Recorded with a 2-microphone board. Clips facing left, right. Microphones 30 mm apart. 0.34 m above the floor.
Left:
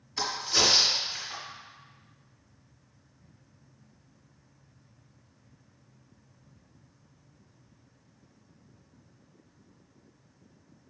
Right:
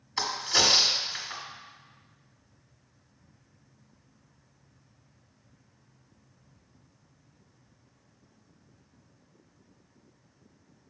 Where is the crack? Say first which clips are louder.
Right 1 dB; 40° right (ahead or behind), 1.3 m.